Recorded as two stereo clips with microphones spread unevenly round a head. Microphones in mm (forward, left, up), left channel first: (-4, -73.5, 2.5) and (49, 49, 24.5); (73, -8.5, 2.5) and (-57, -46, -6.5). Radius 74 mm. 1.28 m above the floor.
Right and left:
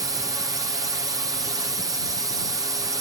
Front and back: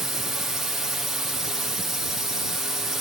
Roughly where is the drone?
Behind left.